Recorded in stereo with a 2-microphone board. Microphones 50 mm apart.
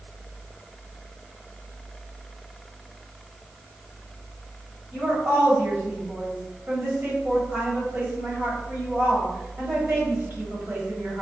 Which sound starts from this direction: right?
A woman speaking, at 4.9 s.